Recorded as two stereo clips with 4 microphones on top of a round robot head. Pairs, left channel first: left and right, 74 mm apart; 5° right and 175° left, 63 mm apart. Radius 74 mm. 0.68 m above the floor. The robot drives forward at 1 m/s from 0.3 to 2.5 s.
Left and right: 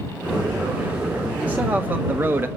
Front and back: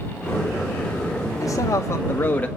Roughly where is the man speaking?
Ahead.